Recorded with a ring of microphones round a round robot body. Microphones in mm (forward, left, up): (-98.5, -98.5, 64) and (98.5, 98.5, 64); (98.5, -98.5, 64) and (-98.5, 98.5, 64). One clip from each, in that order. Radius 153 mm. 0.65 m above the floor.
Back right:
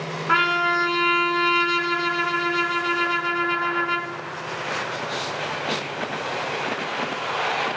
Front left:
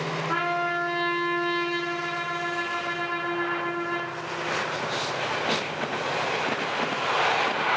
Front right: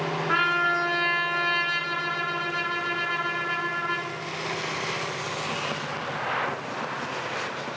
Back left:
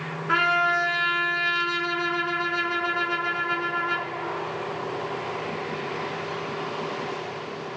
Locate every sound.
0.3 s a trumpet: 140° right, 1.8 m